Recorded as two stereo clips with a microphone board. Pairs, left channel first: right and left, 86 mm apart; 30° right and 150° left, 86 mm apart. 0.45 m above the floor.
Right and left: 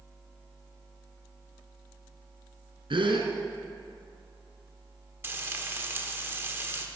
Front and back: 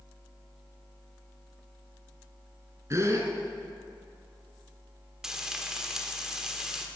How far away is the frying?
About 1.2 m.